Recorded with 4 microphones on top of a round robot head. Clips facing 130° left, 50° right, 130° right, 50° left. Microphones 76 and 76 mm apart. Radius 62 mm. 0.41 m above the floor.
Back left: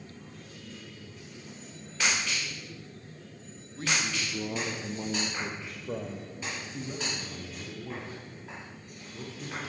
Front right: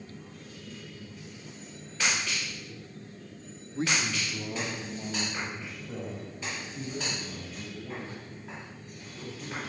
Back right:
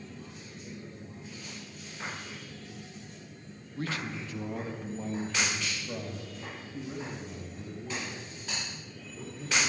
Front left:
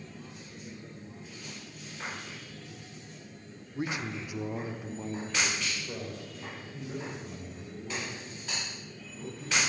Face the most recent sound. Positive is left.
turn(degrees=145)